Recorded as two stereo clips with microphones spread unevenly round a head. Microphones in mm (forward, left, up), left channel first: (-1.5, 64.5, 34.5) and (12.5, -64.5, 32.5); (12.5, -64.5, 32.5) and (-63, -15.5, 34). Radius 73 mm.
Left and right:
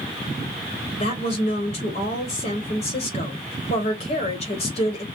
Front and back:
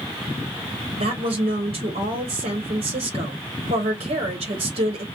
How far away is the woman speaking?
About 0.9 m.